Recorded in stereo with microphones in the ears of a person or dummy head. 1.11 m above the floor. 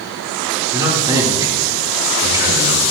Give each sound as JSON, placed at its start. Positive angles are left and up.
{"t": 0.7, "sound": "a man speaking", "side_deg": -25, "distance_m": 2.0}